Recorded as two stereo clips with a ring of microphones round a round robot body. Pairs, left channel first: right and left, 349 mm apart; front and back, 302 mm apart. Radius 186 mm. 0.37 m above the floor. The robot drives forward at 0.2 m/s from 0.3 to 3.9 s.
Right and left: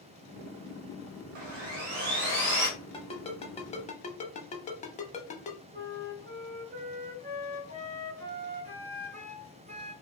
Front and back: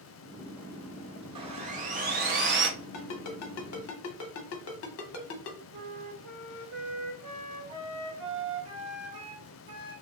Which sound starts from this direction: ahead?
A ringtone, at 2.9 s.